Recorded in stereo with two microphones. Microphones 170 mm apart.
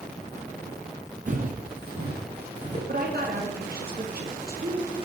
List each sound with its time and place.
1.3 s footsteps: 50° right (ahead or behind), 1.3 m; by 2.8 s 70° right (ahead or behind), 2.5 m
2.9 s a woman speaking: 60° right (ahead or behind), 1.6 m